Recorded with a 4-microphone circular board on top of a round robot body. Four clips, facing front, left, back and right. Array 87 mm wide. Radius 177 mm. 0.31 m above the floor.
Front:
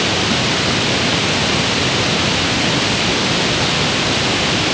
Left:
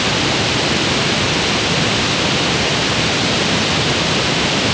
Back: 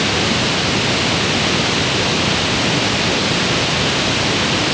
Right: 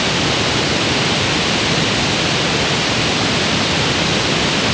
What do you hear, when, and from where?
Only background noise.